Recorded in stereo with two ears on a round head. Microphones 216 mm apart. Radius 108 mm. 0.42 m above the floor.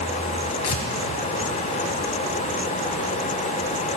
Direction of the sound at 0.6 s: 70° left (ahead or behind).